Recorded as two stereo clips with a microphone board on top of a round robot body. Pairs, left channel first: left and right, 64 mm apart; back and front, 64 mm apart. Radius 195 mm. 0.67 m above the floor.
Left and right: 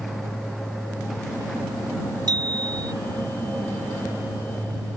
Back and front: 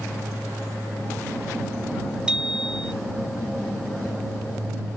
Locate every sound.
2.3 s a bicycle bell: 80° right